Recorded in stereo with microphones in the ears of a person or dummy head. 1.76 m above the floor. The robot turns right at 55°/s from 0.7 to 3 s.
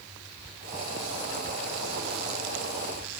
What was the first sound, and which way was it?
Only background noise.